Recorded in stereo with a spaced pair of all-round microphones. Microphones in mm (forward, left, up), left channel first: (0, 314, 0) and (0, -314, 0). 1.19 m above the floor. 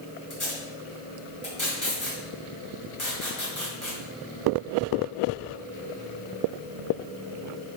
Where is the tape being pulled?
35° left (ahead or behind), 2.5 m.